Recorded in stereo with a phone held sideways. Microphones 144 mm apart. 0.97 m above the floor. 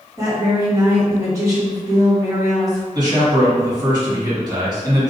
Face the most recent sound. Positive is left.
turn(degrees=-30)  # may be behind; listen again after turning